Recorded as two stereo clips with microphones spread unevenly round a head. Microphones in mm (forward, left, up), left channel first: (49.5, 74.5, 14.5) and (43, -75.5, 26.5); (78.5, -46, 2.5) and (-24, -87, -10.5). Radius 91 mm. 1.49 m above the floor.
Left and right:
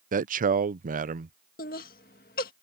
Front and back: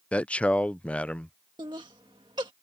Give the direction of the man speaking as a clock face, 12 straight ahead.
2 o'clock.